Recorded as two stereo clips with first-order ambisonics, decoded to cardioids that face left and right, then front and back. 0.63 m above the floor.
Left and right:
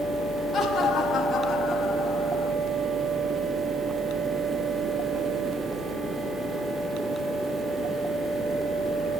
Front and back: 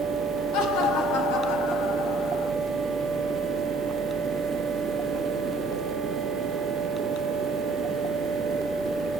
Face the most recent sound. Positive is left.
turn(degrees=10)